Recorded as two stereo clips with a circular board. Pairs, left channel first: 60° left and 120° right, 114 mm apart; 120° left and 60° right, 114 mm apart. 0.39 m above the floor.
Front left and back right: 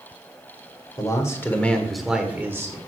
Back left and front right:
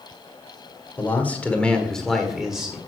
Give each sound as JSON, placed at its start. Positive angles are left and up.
{"t": 1.0, "sound": "a man speaking", "azimuth_deg": 60, "distance_m": 1.3}